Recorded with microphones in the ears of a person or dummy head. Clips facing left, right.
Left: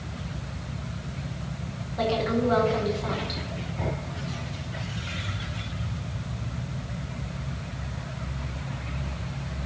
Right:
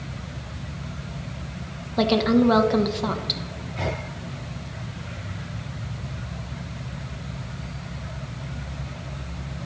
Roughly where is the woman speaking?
Right.